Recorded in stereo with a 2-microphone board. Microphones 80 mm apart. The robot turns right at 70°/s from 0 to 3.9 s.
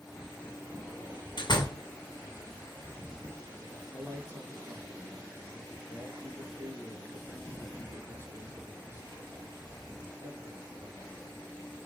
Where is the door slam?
95° left, 2.0 m; by 1.8 s 130° left, 2.0 m.